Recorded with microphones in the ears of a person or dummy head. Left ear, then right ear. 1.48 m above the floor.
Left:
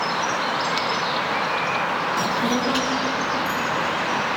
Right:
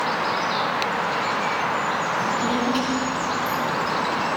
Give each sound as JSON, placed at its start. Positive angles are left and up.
{"t": 2.2, "sound": "a child speaking", "side_deg": 40, "distance_m": 0.8}